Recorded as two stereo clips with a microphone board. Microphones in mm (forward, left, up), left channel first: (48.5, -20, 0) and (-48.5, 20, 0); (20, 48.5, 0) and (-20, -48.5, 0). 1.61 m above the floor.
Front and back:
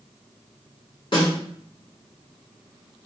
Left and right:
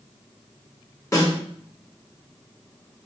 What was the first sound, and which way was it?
A snare drum, 10° left.